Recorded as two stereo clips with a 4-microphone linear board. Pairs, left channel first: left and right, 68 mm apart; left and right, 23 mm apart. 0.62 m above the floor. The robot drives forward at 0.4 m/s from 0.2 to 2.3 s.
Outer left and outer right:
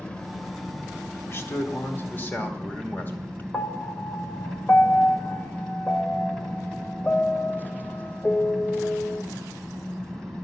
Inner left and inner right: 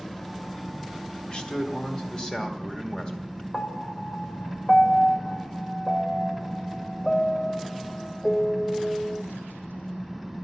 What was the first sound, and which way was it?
An engine running, 15° left (ahead or behind).